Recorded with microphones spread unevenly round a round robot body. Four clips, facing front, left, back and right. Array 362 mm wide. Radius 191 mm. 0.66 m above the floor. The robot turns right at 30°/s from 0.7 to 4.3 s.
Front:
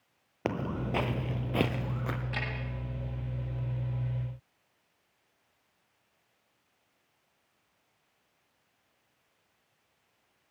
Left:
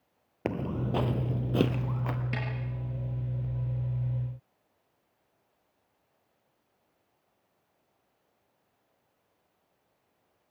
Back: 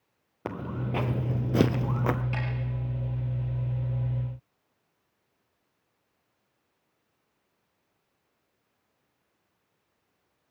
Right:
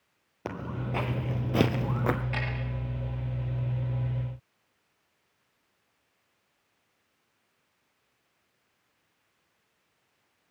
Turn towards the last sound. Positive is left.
turn(degrees=170)